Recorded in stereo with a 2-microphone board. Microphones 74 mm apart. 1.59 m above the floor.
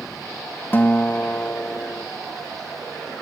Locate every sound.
0.7 s a guitar: 30° left (ahead or behind)